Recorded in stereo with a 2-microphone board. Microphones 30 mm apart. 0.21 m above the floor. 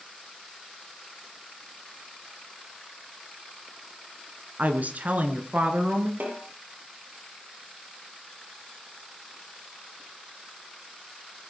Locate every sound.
4.6 s a woman speaking: 60° right (ahead or behind), 2.5 m; by 6.1 s 50° right (ahead or behind), 3.5 m
6.2 s a snare drum: 70° right (ahead or behind), 6.5 m